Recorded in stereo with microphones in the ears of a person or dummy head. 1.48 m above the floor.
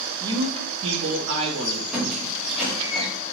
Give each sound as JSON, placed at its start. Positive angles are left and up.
{"t": 0.2, "sound": "a man speaking", "side_deg": -20, "distance_m": 0.5}
{"t": 1.9, "sound": "a squeak", "side_deg": 0, "distance_m": 1.5}